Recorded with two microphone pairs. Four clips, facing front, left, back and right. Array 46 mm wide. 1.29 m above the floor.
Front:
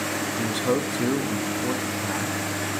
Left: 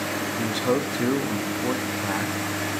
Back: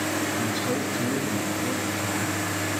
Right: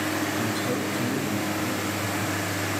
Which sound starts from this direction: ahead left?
A man speaking, at 0.4 s.